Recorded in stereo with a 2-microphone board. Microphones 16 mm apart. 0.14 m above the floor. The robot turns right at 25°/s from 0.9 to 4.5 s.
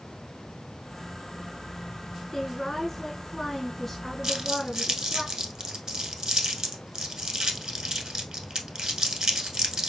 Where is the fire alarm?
No fire alarm in this recording.